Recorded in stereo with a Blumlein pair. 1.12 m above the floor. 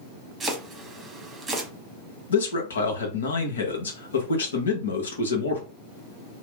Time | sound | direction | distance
0.4 | chopping | 15° right | 0.9 m
2.3 | a man speaking | 70° left | 1.0 m